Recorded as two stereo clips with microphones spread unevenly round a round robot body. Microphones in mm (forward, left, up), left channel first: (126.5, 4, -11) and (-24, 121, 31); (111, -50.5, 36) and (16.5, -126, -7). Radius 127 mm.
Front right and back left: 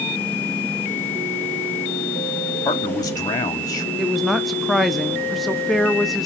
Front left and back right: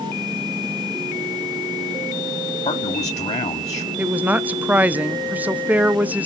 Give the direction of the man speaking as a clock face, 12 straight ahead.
12 o'clock.